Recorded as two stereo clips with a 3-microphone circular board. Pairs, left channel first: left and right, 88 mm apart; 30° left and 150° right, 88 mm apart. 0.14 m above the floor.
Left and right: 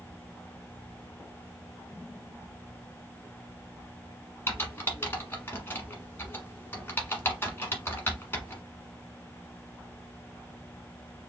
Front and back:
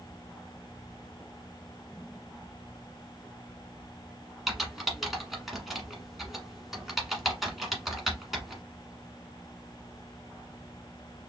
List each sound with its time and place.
4.5 s typing on a keyboard: 125° left, 1.2 m